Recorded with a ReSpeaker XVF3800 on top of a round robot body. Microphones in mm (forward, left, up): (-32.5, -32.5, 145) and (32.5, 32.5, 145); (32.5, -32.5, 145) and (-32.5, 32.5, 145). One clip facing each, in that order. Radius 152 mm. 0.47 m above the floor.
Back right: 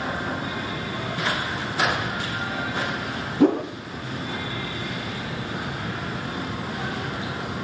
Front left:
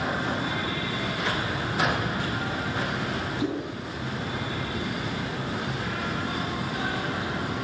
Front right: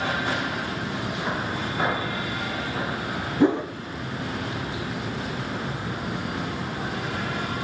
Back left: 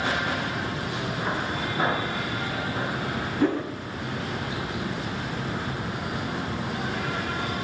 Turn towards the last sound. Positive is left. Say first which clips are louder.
# back right 13 dB, front right 4 dB
turn(degrees=-115)